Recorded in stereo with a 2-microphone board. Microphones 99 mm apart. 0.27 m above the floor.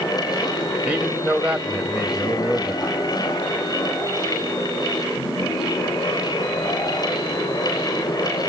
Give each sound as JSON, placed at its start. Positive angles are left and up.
{"t": 0.8, "sound": "a man speaking", "side_deg": -15, "distance_m": 1.5}